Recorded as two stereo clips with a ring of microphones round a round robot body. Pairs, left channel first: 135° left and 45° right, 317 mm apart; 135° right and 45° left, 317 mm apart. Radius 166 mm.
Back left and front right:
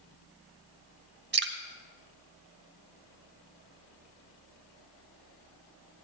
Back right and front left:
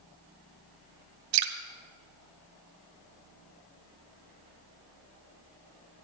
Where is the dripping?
10° left, 1.9 m.